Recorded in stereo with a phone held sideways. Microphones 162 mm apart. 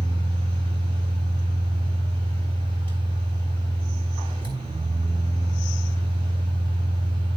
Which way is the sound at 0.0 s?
35° right (ahead or behind).